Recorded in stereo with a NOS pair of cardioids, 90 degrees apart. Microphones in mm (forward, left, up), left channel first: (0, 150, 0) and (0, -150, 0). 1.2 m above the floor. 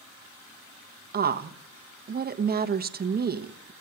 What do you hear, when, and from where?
1.1 s a woman speaking: 30° right, 1.1 m